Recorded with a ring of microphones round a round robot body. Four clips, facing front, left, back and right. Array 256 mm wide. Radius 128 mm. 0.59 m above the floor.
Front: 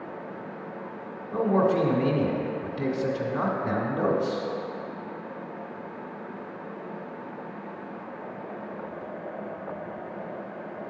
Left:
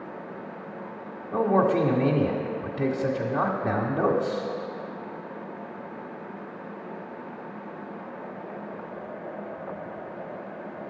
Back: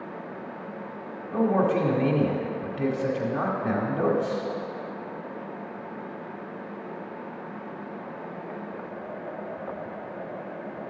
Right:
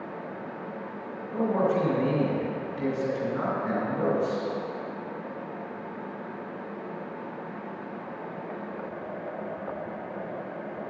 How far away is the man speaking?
About 1.7 m.